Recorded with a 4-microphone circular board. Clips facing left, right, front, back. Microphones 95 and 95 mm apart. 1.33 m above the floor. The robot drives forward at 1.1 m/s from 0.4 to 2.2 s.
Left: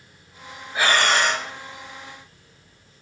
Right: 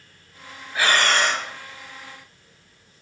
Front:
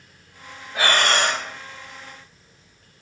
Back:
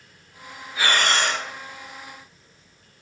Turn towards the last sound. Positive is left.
turn(degrees=40)